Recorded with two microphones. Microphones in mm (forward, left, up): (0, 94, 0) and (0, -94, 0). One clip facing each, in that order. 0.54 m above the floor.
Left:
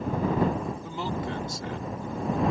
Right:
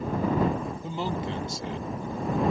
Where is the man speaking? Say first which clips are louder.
Right 1 dB; 25° right (ahead or behind).